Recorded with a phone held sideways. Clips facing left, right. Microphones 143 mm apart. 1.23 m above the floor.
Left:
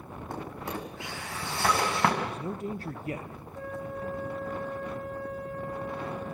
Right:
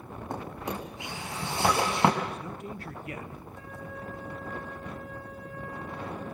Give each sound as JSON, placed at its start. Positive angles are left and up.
{"t": 0.3, "sound": "a drawer", "side_deg": -20, "distance_m": 6.0}
{"t": 2.2, "sound": "a man speaking", "side_deg": 35, "distance_m": 1.3}
{"t": 3.5, "sound": "a flute", "side_deg": 40, "distance_m": 6.0}